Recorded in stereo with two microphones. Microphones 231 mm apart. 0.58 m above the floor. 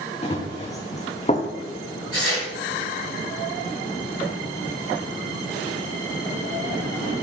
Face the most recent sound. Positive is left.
turn(degrees=70)  # may be behind; listen again after turning